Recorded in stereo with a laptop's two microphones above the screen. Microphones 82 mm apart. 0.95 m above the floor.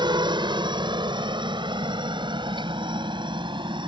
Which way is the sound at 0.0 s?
70° right (ahead or behind).